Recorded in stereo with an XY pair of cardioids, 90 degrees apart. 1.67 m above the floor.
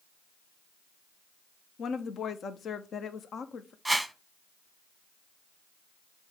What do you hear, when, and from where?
1.8 s a woman speaking: 60° left, 0.7 m
3.9 s a whoosh: 5° right, 1.0 m